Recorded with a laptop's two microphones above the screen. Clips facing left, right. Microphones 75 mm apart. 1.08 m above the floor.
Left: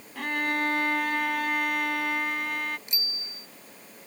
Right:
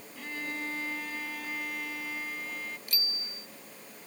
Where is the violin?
65° left (ahead or behind).